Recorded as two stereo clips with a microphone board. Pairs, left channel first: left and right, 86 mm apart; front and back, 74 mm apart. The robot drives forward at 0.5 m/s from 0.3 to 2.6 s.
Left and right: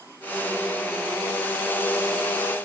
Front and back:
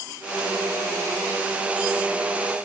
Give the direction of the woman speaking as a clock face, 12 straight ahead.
No woman speaking in this recording.